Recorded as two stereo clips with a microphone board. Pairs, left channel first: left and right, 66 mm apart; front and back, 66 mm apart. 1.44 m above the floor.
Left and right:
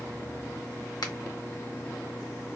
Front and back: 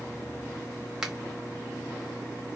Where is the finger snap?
100° left, 1.1 m.